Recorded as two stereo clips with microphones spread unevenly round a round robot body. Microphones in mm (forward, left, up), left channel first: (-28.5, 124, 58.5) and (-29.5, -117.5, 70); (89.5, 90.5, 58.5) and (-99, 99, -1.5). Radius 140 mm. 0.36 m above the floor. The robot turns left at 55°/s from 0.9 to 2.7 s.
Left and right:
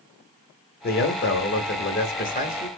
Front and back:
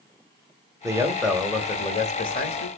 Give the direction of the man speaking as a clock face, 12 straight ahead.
8 o'clock.